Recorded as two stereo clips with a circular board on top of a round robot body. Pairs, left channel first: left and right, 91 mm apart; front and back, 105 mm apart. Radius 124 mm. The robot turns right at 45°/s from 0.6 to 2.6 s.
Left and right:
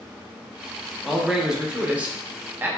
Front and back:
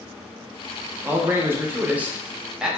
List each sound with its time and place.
1.0 s a man speaking: 175° right, 0.7 m; by 2.7 s 105° right, 0.7 m